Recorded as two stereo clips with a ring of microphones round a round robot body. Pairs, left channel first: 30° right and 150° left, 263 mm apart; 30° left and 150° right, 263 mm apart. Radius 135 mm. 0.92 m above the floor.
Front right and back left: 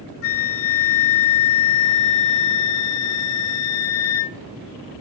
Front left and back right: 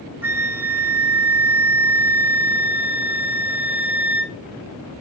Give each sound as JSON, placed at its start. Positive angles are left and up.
{"t": 0.2, "sound": "a flute", "azimuth_deg": -70, "distance_m": 1.2}